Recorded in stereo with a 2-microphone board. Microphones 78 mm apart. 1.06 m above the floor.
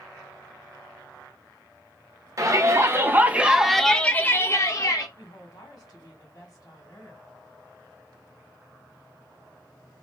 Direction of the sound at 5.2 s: 55° left (ahead or behind).